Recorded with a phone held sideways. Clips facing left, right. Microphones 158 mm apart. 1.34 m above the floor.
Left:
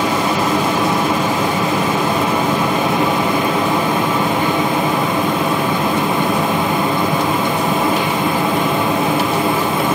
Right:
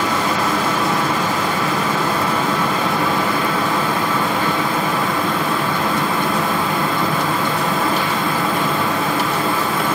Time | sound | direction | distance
0.0 | a fan | 20° left (ahead or behind) | 1.3 m